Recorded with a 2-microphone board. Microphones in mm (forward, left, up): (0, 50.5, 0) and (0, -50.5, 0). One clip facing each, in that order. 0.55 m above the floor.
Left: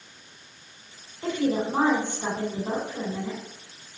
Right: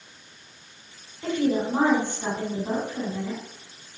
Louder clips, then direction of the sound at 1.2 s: Right 1 dB; 20° left (ahead or behind).